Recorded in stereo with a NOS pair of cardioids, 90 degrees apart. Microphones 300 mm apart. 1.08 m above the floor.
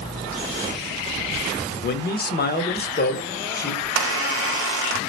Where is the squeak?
50° right, 0.6 m.